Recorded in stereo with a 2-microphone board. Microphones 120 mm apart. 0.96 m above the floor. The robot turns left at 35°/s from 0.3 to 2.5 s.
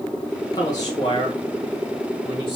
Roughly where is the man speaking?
Behind left.